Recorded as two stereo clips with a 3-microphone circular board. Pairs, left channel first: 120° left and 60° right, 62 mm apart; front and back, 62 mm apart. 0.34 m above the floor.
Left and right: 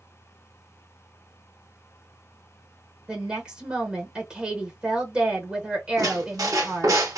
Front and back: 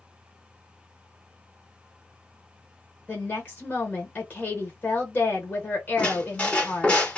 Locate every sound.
3.1 s a woman speaking: 5° right, 0.9 m
6.0 s a squeak: 70° right, 0.9 m